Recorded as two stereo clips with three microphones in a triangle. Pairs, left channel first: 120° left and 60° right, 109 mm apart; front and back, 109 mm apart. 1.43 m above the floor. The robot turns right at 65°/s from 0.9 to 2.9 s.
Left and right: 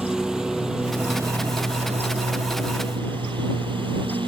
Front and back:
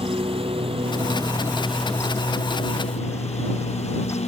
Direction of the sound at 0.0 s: 145° right.